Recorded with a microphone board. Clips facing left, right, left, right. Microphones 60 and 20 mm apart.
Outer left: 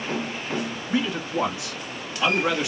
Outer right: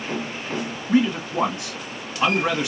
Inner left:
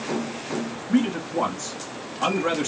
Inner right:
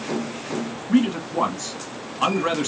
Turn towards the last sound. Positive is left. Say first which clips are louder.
# outer right 6 dB, inner right 2 dB
turn(degrees=-50)  # may be behind; listen again after turning